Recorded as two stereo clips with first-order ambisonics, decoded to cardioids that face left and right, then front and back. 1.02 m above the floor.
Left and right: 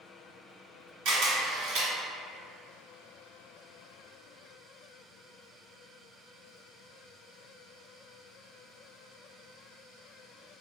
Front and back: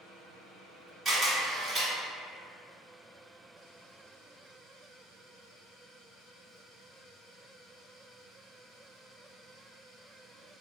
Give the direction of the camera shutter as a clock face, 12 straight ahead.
4 o'clock.